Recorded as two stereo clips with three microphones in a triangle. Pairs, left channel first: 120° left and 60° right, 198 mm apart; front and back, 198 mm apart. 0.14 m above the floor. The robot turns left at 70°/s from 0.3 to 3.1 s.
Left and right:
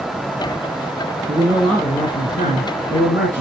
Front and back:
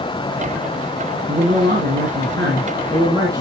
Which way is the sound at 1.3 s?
120° right.